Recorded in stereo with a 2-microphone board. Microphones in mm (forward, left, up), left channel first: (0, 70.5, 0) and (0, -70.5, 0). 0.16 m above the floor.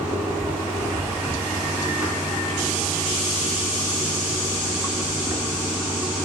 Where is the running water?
15° right (ahead or behind), 7.5 m.